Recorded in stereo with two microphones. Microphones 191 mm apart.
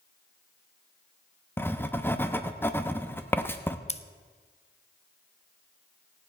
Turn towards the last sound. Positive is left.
turn(degrees=35)  # may be behind; listen again after turning